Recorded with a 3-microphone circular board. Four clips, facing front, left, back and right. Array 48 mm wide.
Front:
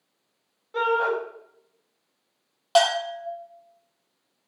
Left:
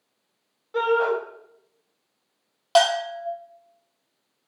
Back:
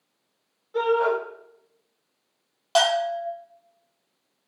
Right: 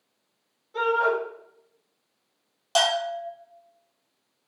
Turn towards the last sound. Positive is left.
turn(degrees=75)